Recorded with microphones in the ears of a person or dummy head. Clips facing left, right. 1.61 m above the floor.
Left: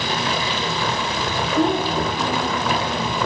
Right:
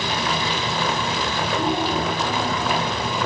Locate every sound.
1.6 s a child speaking: 45° left (ahead or behind), 1.9 m